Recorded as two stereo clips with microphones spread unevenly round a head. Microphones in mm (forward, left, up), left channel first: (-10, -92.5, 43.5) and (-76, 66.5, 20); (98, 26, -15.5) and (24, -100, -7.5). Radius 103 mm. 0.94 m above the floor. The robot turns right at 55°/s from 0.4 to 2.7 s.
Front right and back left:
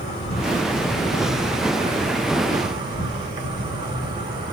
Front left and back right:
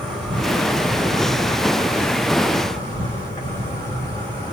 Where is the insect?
25° right, 1.8 m; by 4.5 s 105° left, 1.8 m.